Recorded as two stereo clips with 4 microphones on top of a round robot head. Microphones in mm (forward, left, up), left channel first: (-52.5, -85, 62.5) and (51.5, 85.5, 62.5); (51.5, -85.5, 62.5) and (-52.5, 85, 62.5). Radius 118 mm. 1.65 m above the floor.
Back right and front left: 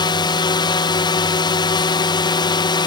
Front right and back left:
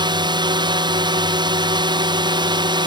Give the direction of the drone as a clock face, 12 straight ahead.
6 o'clock.